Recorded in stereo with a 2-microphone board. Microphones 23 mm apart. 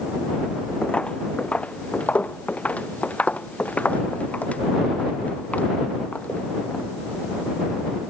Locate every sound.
0.8 s footsteps: 45° left (ahead or behind); by 6.8 s 85° left